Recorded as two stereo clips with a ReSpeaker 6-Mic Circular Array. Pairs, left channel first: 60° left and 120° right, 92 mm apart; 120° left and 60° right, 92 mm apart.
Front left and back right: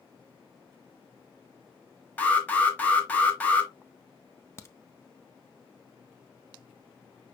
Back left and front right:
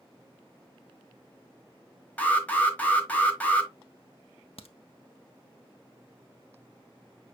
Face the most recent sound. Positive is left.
turn(degrees=120)